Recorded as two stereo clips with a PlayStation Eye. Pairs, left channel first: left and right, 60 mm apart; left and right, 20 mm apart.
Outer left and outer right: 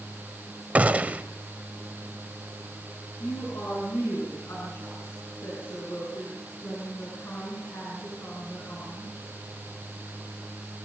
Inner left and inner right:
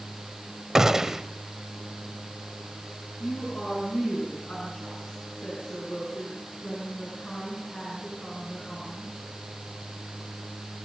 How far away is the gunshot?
About 1.1 m.